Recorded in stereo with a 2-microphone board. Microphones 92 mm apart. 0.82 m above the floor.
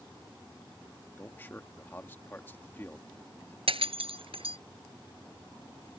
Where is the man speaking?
25° left (ahead or behind).